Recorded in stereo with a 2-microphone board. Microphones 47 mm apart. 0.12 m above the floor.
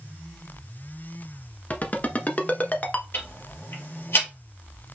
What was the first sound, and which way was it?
A ringtone, 35° left (ahead or behind).